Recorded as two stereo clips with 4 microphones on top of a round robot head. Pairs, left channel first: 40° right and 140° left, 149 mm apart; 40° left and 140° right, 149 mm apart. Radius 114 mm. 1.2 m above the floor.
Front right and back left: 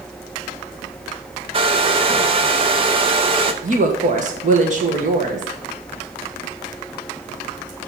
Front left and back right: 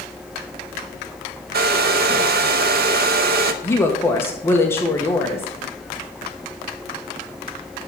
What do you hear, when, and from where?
1.5 s a hair dryer: 165° right, 0.6 m
3.6 s a woman speaking: 110° left, 1.3 m